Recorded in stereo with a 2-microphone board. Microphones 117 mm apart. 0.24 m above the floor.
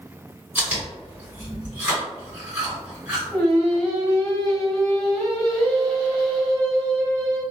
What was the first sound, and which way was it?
Chewing, 15° right (ahead or behind).